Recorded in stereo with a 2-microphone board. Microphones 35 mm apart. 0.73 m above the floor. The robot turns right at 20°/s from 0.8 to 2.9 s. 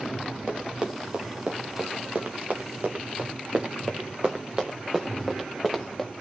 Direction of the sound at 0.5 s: 30° right (ahead or behind).